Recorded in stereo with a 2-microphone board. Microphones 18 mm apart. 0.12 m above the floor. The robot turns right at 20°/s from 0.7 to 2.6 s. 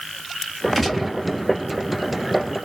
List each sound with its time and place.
0.8 s a gunshot: 5° left (ahead or behind), 1.8 m